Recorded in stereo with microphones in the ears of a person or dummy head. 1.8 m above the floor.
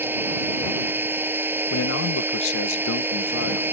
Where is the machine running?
10° right (ahead or behind).